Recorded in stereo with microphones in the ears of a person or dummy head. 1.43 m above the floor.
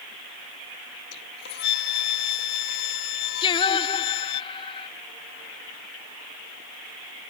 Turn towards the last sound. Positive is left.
turn(degrees=25)  # may be behind; listen again after turning